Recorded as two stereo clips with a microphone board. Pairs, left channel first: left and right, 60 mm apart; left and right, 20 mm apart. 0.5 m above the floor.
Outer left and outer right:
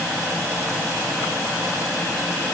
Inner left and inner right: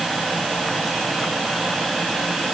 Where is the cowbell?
No cowbell in this recording.